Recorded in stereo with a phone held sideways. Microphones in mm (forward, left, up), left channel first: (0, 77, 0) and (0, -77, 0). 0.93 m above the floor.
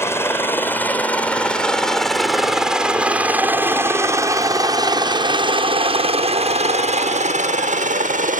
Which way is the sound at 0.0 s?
15° left (ahead or behind).